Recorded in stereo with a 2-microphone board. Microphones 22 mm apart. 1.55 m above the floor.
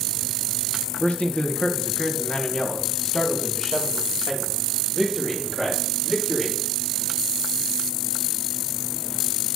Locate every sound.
1.0 s a man speaking: 80° left, 1.5 m; by 6.6 s 20° left (ahead or behind), 4 m